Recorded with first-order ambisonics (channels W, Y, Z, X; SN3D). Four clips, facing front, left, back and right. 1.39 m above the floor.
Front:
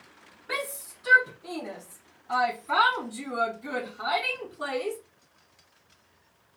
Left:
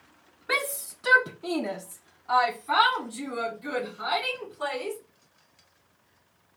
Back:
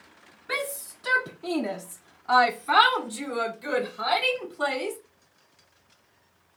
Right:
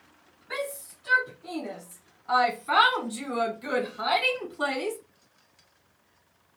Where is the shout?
95° left, 0.7 m; by 5.0 s 135° right, 1.9 m.